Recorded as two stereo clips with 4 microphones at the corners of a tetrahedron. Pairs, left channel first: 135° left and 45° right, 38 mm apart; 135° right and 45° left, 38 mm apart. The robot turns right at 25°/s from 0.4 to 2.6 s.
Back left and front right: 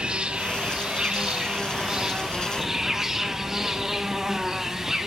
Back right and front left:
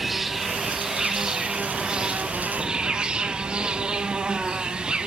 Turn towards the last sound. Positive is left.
turn(degrees=20)